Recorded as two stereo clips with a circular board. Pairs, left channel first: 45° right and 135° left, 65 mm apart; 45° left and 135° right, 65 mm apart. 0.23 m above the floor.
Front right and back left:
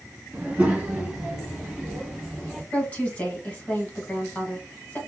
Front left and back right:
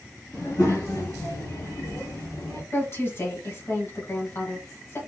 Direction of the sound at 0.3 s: 75° left.